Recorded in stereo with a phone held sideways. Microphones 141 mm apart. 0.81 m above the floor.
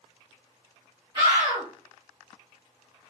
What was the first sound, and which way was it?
A scream, 25° right (ahead or behind).